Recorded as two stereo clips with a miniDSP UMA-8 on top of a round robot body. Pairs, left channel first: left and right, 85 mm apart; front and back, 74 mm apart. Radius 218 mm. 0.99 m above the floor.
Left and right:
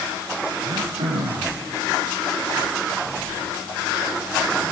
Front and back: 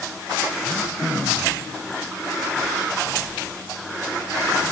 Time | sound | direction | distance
0.6 | throat clearing | 85° right | 2.5 m